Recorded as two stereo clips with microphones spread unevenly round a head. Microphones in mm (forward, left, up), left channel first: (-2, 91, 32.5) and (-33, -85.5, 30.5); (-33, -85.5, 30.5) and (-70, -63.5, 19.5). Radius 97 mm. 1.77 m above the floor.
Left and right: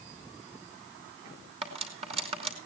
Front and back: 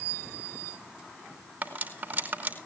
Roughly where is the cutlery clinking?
Behind.